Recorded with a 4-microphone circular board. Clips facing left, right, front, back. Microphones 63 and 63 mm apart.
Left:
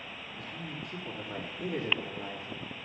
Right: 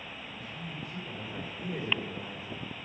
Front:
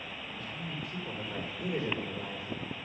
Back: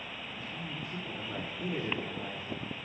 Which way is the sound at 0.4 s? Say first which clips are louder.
Left 1 dB, front 1 dB; 110° left.